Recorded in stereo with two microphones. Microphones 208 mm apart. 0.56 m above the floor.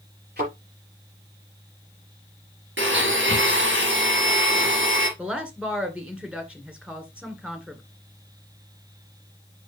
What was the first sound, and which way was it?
A thud, 55° right (ahead or behind).